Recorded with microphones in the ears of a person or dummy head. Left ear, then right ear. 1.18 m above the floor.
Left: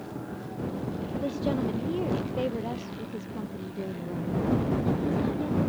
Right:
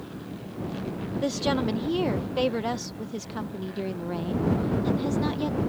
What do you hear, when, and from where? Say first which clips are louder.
1.2 s a woman speaking: right 4 dB; 55° right (ahead or behind)